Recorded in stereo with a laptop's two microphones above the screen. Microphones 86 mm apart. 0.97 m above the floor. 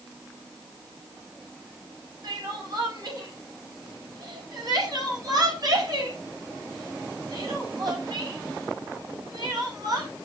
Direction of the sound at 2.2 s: 50° right (ahead or behind).